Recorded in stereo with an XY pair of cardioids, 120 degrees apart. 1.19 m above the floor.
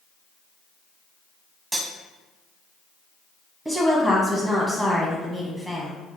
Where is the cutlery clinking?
15° right, 0.8 m.